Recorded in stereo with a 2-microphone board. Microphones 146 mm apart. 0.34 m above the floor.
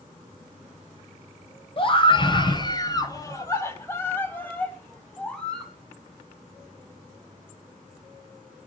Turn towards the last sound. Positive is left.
turn(degrees=5)  # may be behind; listen again after turning